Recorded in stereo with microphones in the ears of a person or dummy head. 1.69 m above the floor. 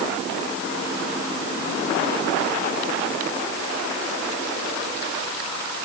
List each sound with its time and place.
Only background noise.